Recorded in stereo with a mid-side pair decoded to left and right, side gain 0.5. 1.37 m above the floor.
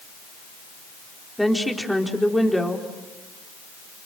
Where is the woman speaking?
Straight ahead, 4 m.